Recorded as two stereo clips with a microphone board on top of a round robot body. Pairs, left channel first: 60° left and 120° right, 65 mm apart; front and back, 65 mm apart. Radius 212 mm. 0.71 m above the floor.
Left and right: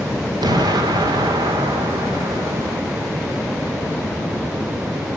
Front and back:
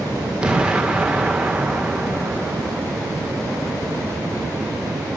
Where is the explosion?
105° right, 1.6 m.